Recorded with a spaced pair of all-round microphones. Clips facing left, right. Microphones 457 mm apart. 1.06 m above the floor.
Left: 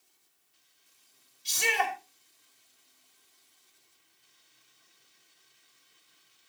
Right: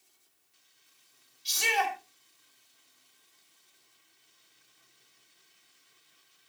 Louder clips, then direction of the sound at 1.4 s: Even; 70° left (ahead or behind).